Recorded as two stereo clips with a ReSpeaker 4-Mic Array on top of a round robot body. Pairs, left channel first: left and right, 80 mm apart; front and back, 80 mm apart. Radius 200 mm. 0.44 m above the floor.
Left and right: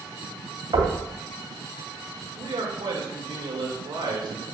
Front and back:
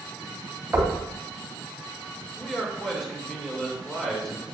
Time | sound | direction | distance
0.7 | knocking | 110° right | 3 m
2.4 | a man speaking | 85° right | 2.5 m